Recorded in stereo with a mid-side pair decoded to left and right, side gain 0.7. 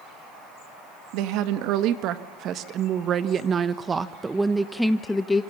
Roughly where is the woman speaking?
Ahead right.